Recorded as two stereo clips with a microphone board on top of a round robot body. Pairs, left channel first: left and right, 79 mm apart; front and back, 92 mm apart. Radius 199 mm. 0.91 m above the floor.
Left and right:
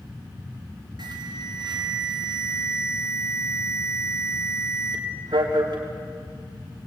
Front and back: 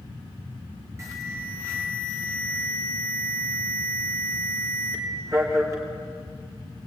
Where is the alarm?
120° right, 4 m.